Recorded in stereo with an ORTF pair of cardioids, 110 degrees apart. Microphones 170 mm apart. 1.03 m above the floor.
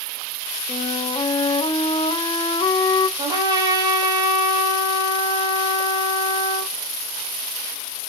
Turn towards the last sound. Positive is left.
turn(degrees=-25)